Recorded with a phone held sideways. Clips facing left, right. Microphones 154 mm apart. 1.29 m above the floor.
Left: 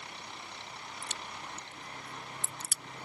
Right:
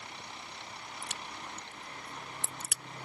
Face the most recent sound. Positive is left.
turn(degrees=-75)  # may be behind; listen again after turning